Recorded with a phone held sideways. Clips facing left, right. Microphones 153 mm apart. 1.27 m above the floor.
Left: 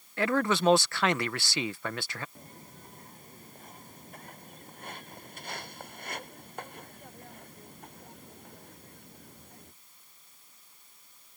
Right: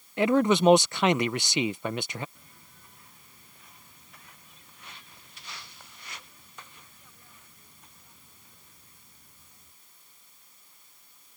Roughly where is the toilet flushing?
I don't hear a toilet flushing.